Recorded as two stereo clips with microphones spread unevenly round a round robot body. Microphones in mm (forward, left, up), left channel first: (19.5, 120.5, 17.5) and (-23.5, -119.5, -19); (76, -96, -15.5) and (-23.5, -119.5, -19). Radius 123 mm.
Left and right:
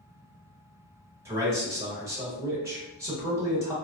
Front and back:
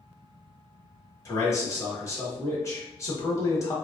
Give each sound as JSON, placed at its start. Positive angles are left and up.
{"t": 1.2, "sound": "a man speaking", "azimuth_deg": -35, "distance_m": 1.3}